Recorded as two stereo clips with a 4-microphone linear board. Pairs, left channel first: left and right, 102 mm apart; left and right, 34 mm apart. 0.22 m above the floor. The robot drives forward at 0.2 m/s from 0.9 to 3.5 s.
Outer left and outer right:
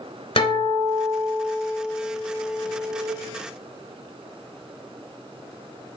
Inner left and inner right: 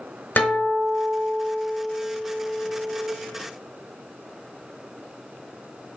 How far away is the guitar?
About 1.0 m.